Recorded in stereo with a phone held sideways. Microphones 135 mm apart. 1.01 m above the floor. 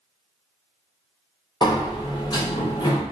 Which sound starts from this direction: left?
A sliding door, at 1.6 s.